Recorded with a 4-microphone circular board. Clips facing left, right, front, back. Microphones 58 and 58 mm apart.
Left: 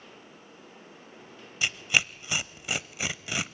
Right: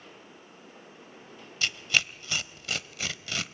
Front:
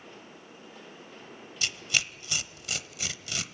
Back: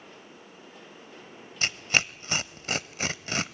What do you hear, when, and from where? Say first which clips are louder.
1.6 s tearing paper: left 1 dB, back 4 dB; 155° left, 0.8 m